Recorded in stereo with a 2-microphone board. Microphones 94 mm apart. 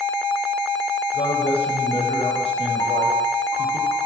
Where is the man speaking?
80° left, 4.5 m.